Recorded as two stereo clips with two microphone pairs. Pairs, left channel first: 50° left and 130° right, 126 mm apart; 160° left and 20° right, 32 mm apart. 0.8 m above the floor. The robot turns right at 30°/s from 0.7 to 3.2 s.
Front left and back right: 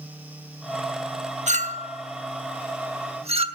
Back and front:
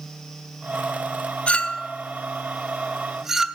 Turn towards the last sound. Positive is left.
turn(degrees=-100)